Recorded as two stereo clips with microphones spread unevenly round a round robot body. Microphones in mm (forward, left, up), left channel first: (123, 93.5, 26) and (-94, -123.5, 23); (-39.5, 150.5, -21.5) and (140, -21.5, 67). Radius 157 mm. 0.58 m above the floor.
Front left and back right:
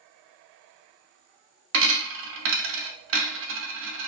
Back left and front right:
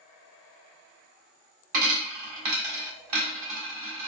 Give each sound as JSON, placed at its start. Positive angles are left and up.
{"t": 1.7, "sound": "a dropped coin", "azimuth_deg": -80, "distance_m": 0.5}